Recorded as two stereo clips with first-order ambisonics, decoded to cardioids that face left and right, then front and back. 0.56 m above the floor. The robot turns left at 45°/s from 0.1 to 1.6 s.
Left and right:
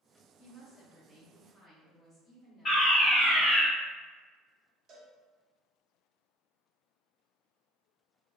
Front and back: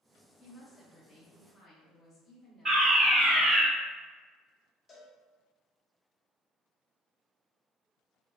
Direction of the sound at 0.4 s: 100° left.